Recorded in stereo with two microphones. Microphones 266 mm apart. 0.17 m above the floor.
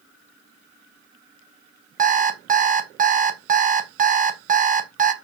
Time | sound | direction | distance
2.0 | an alarm clock | 30° right (ahead or behind) | 0.7 m